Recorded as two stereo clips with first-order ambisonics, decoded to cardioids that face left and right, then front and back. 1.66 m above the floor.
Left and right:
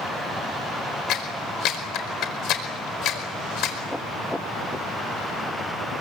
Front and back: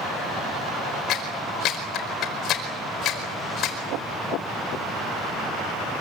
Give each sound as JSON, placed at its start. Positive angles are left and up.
{"t": 1.1, "sound": "a clap", "azimuth_deg": 50, "distance_m": 4.5}